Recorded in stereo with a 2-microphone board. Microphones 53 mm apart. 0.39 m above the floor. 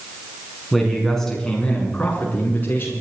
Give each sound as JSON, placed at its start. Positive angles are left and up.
{"t": 0.7, "sound": "a man speaking", "side_deg": 0, "distance_m": 5.0}